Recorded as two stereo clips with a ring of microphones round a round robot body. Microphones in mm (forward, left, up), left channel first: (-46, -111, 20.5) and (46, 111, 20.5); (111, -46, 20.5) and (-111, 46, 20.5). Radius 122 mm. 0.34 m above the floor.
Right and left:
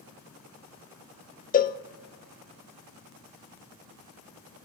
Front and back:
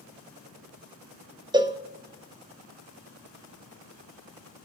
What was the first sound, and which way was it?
A cowbell, 140° right.